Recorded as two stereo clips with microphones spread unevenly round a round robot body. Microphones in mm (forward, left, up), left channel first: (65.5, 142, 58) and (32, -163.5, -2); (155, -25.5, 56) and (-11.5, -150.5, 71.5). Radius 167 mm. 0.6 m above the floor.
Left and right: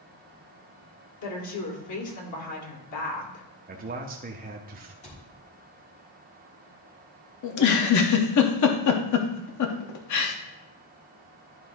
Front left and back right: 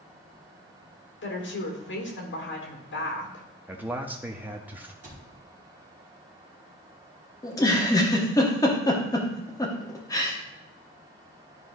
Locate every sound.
1.2 s a woman speaking: 55° left, 2 m
3.7 s a man speaking: 60° right, 0.8 m
5.0 s a cupboard door: 160° left, 1.7 m
7.4 s a giggle: 100° left, 0.9 m